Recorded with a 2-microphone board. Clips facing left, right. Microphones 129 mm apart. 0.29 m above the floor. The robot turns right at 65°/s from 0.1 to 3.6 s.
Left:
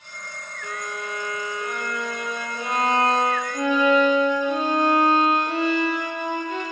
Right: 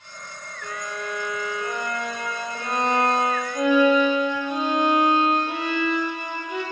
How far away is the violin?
About 5.5 m.